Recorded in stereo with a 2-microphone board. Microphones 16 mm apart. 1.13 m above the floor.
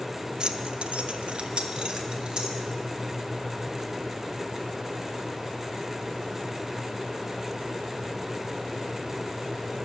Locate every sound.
0.4 s keys jangling: 45° right (ahead or behind), 0.5 m